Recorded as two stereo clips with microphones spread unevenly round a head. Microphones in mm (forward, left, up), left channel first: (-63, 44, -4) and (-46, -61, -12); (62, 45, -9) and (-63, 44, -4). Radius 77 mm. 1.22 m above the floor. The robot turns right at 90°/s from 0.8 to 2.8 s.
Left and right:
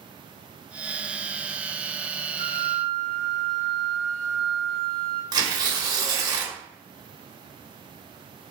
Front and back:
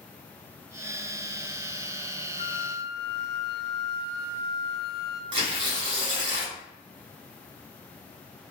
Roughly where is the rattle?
I don't hear a rattle.